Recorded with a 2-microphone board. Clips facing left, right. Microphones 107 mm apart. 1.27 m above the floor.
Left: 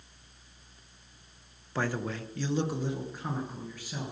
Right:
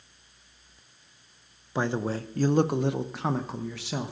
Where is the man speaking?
20° right (ahead or behind), 0.7 m; by 4.1 s 80° right, 1.2 m.